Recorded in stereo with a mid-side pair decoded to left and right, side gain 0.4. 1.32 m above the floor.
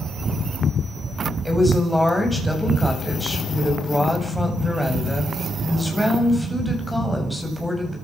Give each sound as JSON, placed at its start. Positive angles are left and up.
{"t": 1.4, "sound": "a woman speaking", "azimuth_deg": 0, "distance_m": 8.5}